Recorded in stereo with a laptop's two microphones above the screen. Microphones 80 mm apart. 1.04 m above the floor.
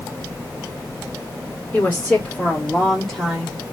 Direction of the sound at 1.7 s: 25° left (ahead or behind).